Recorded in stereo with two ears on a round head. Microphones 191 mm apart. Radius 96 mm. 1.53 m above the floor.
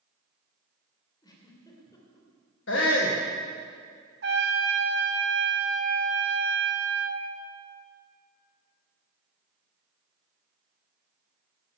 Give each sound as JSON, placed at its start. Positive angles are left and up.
{"t": 1.2, "sound": "a giggle", "side_deg": 20, "distance_m": 2.5}
{"t": 2.7, "sound": "a shout", "side_deg": 60, "distance_m": 1.6}
{"t": 4.2, "sound": "a trumpet", "side_deg": -55, "distance_m": 1.5}